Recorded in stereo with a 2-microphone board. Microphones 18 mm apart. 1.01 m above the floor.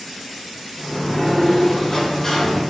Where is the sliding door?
30° left (ahead or behind), 0.7 m.